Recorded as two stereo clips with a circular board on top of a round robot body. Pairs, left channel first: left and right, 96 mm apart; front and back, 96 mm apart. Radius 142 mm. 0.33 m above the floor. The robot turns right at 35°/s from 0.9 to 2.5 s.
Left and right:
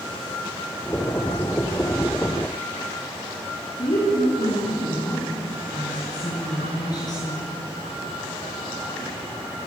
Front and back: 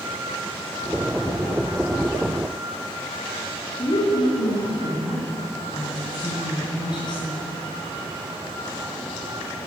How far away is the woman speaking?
About 6.5 m.